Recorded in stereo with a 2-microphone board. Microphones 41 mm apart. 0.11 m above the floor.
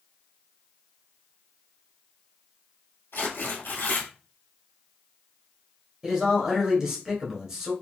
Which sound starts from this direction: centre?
A man speaking, at 6.0 s.